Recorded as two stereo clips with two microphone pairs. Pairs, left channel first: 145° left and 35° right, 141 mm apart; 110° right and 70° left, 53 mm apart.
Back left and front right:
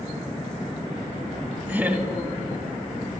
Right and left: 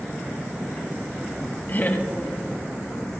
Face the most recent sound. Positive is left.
turn(degrees=-105)